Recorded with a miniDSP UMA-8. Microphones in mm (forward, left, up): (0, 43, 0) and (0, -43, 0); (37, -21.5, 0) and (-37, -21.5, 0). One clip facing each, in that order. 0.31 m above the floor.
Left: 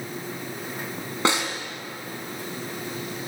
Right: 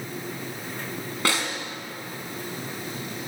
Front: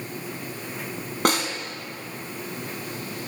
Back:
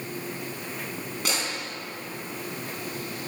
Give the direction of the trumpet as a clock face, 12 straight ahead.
I don't hear a trumpet.